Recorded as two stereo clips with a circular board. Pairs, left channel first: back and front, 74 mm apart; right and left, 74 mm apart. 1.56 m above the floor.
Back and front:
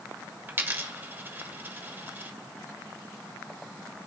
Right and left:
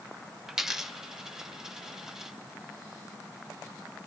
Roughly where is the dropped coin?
Ahead.